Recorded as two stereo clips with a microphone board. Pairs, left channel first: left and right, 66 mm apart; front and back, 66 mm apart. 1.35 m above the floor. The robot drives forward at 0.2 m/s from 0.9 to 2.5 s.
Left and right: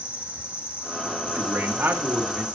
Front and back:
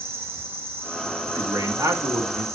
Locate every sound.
0.0 s an insect: 145° right, 1.7 m; by 2.5 s 155° right, 2.0 m
1.4 s a man speaking: 140° right, 2 m; by 2.5 s 145° right, 2 m